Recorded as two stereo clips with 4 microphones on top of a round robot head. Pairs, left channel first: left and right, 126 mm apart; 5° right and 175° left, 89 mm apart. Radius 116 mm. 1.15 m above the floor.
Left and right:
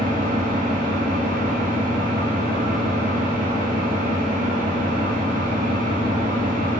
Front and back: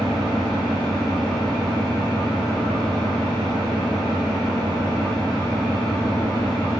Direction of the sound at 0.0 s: 90° right.